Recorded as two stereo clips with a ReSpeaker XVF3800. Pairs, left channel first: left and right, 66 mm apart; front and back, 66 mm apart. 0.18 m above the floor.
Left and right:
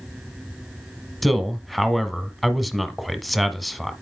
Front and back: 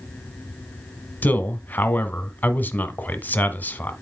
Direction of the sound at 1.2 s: 5° right.